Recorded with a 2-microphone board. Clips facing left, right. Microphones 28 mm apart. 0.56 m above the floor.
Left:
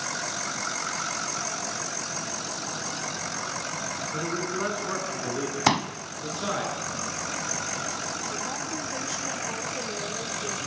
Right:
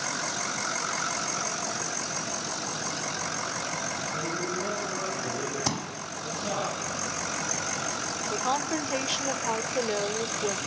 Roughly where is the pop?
Left.